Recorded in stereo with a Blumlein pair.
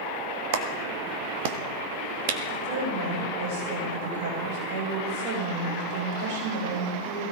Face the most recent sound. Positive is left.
turn(degrees=-45)